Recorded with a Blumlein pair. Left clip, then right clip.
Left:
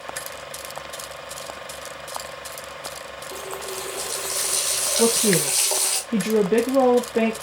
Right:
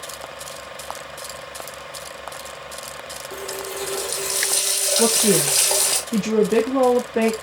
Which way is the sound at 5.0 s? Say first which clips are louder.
Right 1 dB; straight ahead.